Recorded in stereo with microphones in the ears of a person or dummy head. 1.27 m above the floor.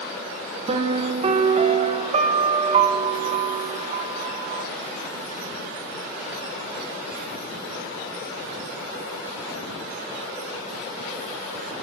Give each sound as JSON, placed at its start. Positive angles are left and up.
{"t": 0.7, "sound": "a piano", "side_deg": -40, "distance_m": 0.7}